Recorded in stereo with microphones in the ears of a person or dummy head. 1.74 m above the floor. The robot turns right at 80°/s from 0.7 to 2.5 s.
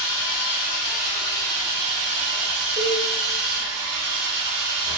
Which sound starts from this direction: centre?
A cowbell, at 2.8 s.